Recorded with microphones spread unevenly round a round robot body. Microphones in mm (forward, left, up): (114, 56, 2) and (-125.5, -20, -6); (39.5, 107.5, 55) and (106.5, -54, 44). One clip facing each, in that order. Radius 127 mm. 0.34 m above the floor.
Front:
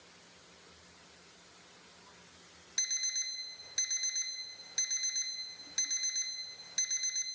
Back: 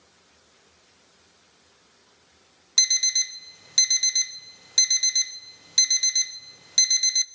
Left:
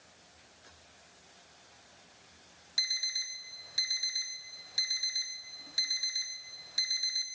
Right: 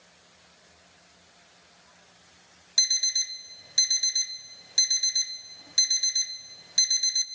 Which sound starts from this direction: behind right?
An alarm clock, at 2.8 s.